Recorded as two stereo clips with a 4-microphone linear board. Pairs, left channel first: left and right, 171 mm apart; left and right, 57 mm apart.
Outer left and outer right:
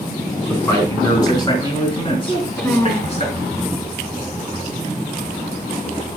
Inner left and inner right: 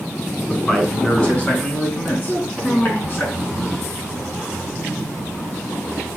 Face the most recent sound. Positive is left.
turn(degrees=15)  # may be behind; listen again after turning